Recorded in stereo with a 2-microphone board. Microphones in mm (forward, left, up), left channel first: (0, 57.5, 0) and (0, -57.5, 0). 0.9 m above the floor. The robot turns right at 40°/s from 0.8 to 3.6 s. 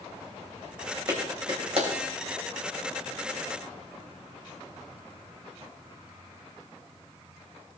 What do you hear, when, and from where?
1.1 s a clap: 30° right (ahead or behind), 4 m; by 1.9 s 60° right (ahead or behind), 4 m